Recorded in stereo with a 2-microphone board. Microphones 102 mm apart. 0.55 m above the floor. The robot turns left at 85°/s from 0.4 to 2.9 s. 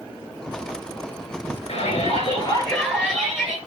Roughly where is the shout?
Left.